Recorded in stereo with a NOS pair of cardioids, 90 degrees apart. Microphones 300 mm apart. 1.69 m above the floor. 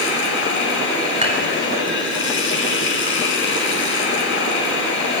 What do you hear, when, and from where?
0.0 s running water: 40° left, 5 m
1.2 s dishes clattering: 20° right, 4.5 m